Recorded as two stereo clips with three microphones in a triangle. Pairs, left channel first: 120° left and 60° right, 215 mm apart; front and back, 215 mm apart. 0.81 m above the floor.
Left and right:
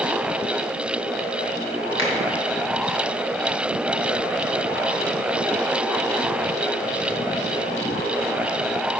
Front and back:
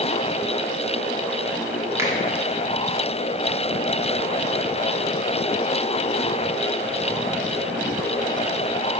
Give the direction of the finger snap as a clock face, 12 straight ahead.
9 o'clock.